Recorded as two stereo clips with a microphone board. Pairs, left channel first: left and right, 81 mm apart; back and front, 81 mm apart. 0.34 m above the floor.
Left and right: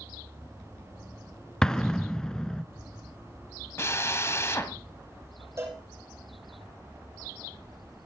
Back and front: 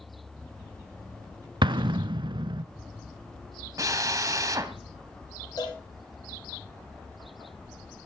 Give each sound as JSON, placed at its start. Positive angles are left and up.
{"t": 1.6, "sound": "an explosion", "azimuth_deg": 10, "distance_m": 0.7}
{"t": 3.8, "sound": "a drill", "azimuth_deg": 40, "distance_m": 1.8}
{"t": 5.6, "sound": "a cowbell", "azimuth_deg": -150, "distance_m": 6.5}